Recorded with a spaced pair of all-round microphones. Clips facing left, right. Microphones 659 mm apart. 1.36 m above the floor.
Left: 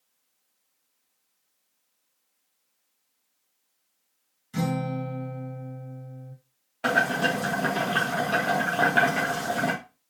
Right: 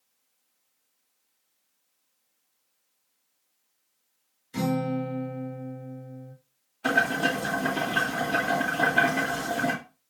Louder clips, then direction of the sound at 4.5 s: Right 2 dB; 70° left (ahead or behind).